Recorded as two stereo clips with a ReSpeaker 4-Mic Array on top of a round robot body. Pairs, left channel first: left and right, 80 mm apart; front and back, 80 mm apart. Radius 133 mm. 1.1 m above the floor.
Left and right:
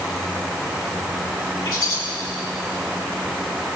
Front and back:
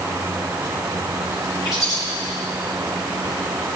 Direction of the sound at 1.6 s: 45° left.